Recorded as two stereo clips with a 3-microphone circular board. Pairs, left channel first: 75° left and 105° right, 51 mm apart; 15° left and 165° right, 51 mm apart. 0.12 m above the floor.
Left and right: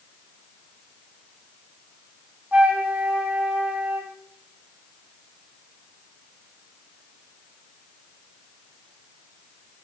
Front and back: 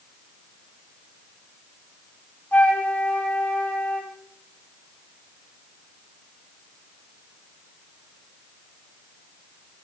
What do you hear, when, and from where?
2.5 s a flute: 40° right, 3.5 m